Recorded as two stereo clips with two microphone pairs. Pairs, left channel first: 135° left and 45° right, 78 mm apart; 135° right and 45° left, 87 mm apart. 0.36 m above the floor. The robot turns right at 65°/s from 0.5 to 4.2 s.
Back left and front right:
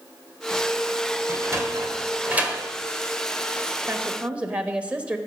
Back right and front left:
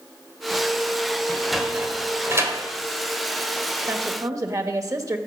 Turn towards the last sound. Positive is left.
turn(degrees=20)